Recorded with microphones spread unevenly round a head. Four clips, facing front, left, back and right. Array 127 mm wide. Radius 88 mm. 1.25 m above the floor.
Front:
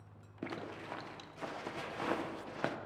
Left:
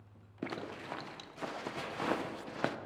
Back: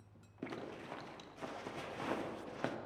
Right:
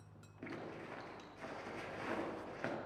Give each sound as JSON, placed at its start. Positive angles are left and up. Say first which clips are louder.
{"t": 0.4, "sound": "a zipper", "louder": "left 6 dB, front 2 dB", "azimuth_deg": 50, "distance_m": 0.7}